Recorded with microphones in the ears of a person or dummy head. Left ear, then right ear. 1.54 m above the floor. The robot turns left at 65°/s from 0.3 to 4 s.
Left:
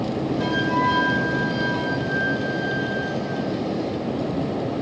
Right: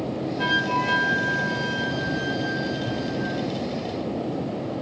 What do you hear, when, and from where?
0.4 s a flute: 35° right, 6 m; by 3.4 s 135° left, 6 m